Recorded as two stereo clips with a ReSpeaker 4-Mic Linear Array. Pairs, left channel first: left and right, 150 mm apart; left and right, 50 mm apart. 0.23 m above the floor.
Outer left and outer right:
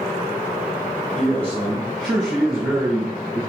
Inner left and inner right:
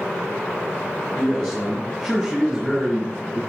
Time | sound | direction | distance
1.1 | a man speaking | 10° left (ahead or behind) | 2 m